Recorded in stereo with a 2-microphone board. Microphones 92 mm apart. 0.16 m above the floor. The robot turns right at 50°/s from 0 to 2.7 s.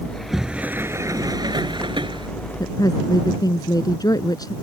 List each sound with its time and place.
0.1 s a sliding door: 170° left; by 2.3 s 80° right
2.6 s a woman speaking: 45° left (ahead or behind)